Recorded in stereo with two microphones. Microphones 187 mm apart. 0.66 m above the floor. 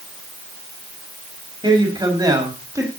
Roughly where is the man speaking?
Right.